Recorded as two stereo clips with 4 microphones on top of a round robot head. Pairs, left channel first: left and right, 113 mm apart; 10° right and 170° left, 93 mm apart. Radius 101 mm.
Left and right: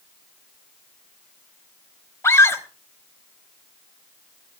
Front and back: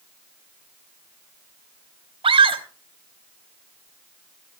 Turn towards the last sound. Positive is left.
turn(degrees=155)